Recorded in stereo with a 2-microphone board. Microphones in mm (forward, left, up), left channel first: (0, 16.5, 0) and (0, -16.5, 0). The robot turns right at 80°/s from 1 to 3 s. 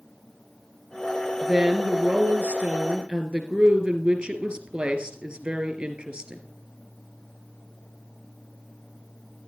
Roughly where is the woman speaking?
Behind.